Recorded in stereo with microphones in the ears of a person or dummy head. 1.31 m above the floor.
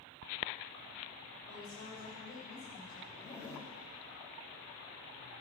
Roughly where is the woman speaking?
Left.